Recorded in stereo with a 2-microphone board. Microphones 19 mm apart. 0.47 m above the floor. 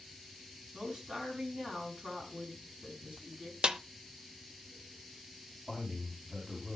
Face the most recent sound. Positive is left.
turn(degrees=-30)  # may be behind; listen again after turning